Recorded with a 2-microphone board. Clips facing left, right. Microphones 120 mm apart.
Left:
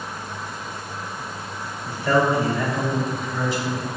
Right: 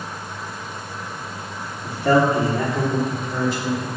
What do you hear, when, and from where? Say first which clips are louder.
1.8 s a man speaking: right 3 dB; 75° right (ahead or behind), 3 m; by 3.9 s 55° right (ahead or behind), 4 m